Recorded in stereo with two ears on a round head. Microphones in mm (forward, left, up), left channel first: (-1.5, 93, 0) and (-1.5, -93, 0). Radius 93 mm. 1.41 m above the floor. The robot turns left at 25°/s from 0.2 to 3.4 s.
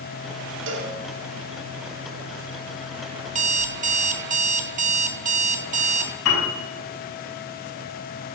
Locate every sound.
0.7 s a cowbell: 65° right (ahead or behind), 2.5 m; by 0.9 s 70° right (ahead or behind), 2.5 m
3.3 s an alarm clock: 35° right (ahead or behind), 1.1 m
6.2 s a piano: 80° left, 5 m